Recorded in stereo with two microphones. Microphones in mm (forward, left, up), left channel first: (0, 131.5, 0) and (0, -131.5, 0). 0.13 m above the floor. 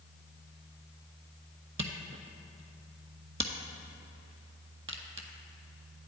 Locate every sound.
1.8 s a camera shutter: 50° right (ahead or behind), 0.8 m